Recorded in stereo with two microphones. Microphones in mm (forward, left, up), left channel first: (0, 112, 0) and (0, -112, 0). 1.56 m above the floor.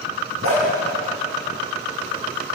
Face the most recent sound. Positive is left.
turn(degrees=-70)  # may be behind; listen again after turning